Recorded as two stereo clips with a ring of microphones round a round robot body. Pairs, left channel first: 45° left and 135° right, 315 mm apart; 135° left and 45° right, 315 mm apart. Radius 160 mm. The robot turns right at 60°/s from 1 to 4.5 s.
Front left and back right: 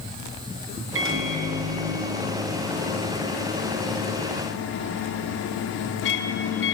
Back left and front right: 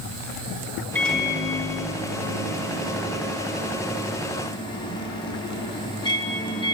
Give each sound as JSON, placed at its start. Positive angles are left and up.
{"t": 0.9, "sound": "a microwave", "azimuth_deg": -145, "distance_m": 0.6}